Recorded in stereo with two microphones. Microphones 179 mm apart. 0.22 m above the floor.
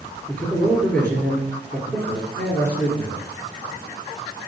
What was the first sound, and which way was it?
A man speaking, 15° left (ahead or behind).